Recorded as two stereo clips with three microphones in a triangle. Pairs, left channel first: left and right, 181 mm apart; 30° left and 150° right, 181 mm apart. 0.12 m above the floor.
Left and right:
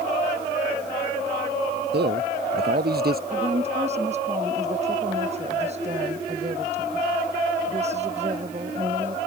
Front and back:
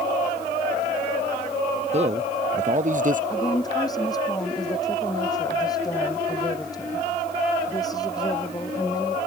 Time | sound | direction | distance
1.9 | a man speaking | 100° right | ?
3.3 | a woman speaking | 40° right | ?